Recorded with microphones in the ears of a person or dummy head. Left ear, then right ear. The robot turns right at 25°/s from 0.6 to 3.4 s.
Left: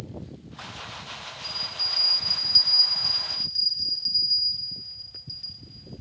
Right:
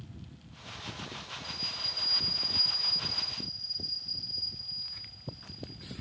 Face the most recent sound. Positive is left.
turn(degrees=85)